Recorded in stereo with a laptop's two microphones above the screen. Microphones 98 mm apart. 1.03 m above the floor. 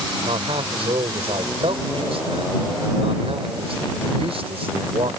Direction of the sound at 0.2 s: 85° right.